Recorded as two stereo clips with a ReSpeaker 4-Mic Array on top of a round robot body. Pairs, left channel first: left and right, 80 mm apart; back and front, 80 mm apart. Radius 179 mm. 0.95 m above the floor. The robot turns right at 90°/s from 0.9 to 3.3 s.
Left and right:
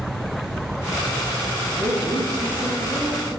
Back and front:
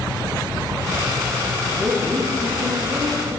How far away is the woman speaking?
About 7.5 m.